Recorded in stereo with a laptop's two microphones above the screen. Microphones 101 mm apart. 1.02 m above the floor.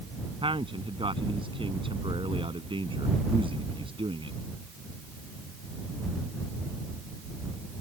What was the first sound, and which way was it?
A man speaking, 60° right (ahead or behind).